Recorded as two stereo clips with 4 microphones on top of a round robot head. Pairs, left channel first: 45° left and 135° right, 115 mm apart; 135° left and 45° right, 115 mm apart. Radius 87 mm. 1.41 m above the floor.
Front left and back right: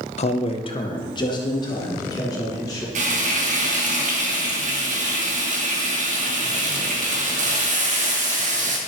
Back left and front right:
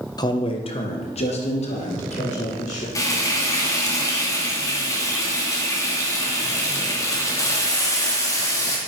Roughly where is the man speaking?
Left.